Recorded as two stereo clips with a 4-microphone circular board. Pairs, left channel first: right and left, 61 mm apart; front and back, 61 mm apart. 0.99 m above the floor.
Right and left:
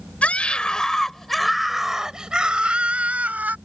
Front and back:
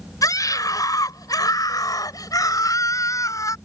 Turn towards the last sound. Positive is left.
turn(degrees=25)